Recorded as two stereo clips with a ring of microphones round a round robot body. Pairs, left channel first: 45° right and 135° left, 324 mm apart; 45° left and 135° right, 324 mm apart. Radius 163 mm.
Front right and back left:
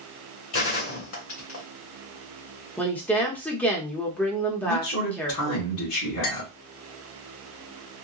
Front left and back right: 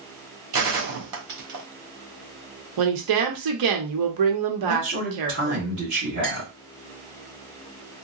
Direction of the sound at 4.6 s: 80° right.